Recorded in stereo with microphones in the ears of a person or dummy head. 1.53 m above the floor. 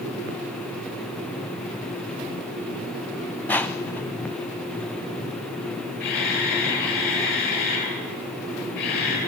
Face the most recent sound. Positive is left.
turn(degrees=50)  # may be behind; listen again after turning